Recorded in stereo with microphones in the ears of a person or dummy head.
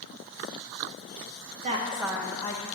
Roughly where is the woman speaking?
Right.